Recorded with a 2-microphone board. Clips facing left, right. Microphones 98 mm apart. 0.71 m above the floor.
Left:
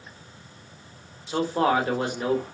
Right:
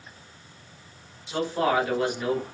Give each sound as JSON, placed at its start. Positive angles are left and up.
{"t": 1.3, "sound": "a man speaking", "side_deg": 35, "distance_m": 1.3}